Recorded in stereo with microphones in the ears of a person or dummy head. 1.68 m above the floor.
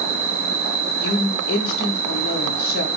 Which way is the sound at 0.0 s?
45° right (ahead or behind).